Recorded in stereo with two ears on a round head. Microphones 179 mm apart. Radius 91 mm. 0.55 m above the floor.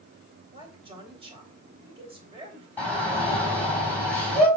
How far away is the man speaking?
About 3 m.